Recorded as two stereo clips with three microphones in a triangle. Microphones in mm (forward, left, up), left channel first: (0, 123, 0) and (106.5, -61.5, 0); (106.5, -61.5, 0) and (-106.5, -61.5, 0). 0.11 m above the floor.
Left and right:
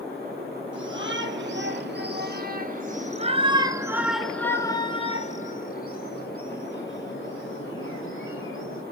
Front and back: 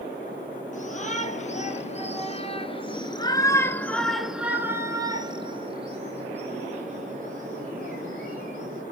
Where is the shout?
50° right, 3 m; by 8.8 s 130° left, 4 m.